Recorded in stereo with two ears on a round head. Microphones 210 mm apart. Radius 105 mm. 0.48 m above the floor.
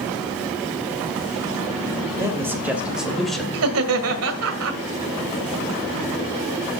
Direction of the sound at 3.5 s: 65° right (ahead or behind).